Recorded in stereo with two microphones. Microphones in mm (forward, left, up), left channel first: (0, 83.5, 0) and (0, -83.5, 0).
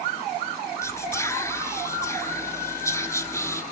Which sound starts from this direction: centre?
Whispering, at 0.8 s.